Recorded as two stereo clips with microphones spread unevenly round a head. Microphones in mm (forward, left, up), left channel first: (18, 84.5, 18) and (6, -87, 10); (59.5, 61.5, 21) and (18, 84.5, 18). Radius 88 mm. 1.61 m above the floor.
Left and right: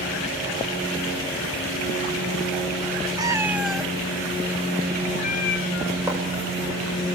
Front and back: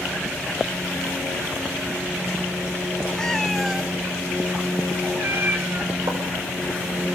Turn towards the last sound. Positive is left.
turn(degrees=-170)